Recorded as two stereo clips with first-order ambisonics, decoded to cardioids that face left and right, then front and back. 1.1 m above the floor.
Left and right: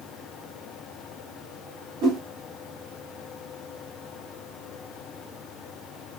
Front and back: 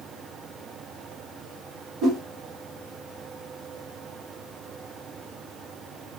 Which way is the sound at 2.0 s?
120° right.